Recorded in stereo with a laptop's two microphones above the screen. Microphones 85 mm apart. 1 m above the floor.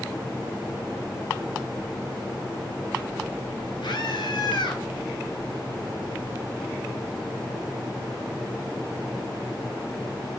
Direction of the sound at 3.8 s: 75° left (ahead or behind).